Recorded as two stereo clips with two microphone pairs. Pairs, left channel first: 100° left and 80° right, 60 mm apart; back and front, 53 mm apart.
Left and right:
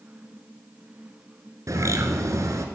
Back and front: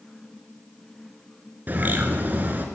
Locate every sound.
1.7 s a bird: 55° right, 1.4 m